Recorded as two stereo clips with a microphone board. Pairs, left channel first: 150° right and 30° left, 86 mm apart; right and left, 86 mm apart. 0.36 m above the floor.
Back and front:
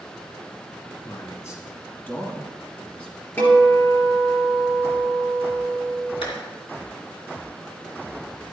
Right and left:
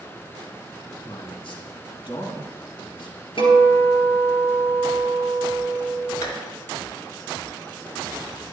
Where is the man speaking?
100° right, 3 m; by 3.3 s 70° right, 3 m.